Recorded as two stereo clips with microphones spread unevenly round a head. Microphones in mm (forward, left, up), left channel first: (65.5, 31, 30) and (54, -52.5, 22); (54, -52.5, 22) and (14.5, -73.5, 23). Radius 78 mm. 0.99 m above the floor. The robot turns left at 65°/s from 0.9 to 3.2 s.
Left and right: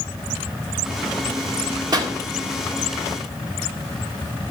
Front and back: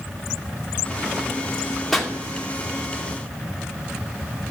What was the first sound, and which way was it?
A pop, 55° right.